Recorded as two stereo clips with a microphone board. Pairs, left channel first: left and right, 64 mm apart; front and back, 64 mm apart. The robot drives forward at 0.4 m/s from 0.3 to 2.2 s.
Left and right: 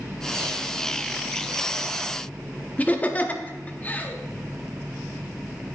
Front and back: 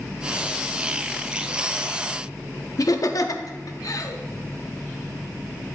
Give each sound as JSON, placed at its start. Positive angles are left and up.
{"t": 2.8, "sound": "laughter", "azimuth_deg": 25, "distance_m": 0.8}